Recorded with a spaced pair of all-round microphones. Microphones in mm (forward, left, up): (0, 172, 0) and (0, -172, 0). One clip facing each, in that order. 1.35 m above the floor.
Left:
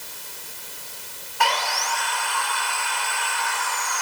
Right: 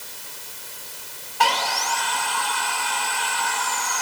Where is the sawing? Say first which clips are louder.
Right 1 dB; 45° right (ahead or behind), 0.9 m.